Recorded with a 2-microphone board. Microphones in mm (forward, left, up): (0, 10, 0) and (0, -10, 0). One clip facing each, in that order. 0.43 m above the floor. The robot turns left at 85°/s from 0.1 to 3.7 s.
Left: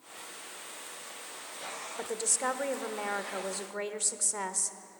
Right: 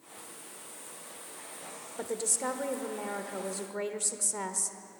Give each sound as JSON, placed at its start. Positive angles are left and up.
{"t": 2.0, "sound": "a woman speaking", "azimuth_deg": 170, "distance_m": 1.0}